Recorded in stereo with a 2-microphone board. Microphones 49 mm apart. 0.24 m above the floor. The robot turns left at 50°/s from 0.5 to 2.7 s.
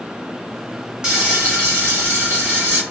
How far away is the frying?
About 1.6 m.